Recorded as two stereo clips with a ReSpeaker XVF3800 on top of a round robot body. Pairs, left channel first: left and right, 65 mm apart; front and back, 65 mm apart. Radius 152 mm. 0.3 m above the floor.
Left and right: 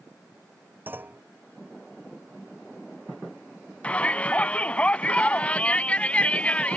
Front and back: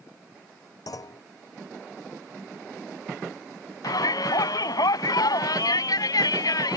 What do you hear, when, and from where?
0.9 s a clunk: 30° right
3.8 s a shout: 20° left